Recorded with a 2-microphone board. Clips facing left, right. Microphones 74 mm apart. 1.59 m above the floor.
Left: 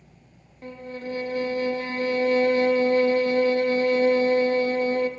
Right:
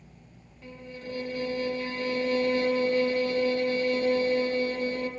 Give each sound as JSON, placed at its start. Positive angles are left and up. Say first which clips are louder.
{"t": 0.6, "sound": "a violin", "louder": "left 6 dB", "side_deg": 50, "distance_m": 0.5}